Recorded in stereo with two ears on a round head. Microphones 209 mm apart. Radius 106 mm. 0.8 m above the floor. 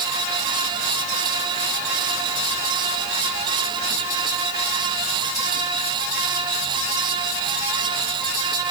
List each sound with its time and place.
Only background noise.